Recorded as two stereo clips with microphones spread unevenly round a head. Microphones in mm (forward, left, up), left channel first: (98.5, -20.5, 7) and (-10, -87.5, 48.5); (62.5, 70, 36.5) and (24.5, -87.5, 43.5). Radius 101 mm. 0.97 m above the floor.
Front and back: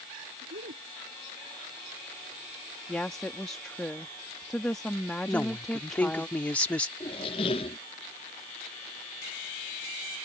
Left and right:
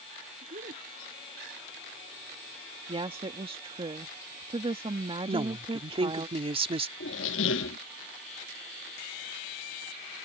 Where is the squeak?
100° left.